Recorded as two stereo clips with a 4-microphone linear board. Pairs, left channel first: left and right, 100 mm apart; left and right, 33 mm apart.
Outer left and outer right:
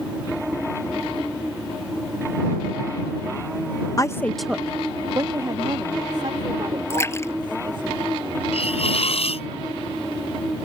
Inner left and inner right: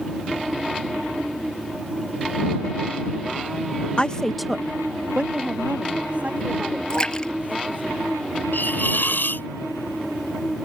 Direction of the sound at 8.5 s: 80° left.